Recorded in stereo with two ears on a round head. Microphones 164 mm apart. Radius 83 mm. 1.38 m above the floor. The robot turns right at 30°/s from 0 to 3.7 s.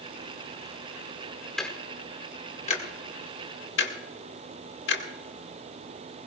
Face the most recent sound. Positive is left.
turn(degrees=65)  # may be behind; listen again after turning